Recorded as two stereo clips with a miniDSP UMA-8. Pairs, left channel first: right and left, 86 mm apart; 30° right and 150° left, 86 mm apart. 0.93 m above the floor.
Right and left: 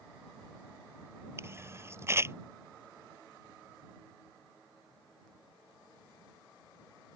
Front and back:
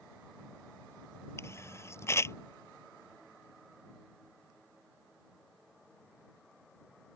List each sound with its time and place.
1.4 s a camera shutter: 30° left